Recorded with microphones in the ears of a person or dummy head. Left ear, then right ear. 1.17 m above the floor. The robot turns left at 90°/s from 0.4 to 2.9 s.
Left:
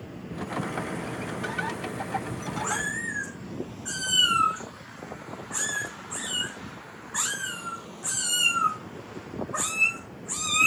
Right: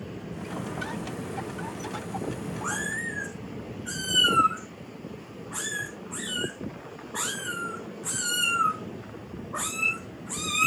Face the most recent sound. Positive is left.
turn(degrees=30)  # may be behind; listen again after turning